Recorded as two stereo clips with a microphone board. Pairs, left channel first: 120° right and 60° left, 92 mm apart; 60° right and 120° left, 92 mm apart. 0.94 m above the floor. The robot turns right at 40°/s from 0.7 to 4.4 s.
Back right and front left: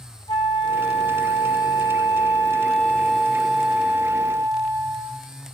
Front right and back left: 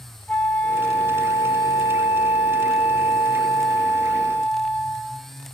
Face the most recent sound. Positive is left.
turn(degrees=10)